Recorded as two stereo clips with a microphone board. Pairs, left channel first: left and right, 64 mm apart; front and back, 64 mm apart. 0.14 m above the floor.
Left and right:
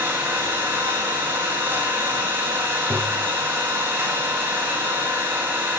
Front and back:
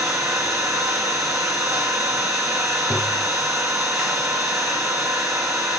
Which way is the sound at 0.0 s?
150° right.